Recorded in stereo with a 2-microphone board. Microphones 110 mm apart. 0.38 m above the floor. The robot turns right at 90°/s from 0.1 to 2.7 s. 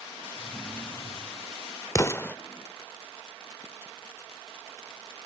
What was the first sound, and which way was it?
A drawer, 30° right.